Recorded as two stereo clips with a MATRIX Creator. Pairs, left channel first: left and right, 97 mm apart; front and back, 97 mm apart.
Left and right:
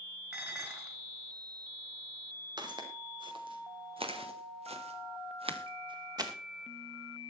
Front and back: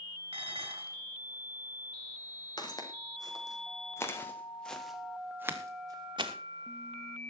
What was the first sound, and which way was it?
Dishes clattering, 165° right.